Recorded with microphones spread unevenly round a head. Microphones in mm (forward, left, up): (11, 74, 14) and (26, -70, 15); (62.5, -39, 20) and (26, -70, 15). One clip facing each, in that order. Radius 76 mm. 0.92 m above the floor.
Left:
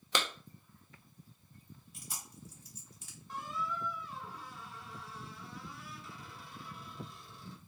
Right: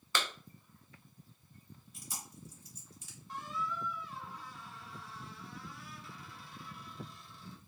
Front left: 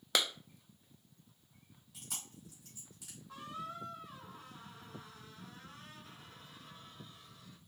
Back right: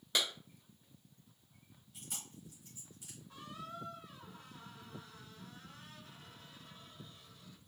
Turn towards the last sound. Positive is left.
turn(degrees=95)